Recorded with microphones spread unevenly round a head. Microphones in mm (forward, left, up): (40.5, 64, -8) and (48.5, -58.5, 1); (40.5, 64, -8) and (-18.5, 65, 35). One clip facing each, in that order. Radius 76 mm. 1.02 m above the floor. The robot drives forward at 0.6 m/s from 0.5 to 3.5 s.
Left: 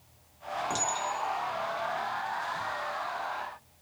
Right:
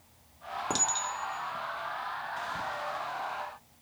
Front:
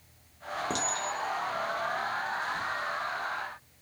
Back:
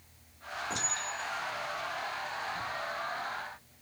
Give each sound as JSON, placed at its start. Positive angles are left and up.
{"t": 0.7, "sound": "a clink", "azimuth_deg": -30, "distance_m": 1.3}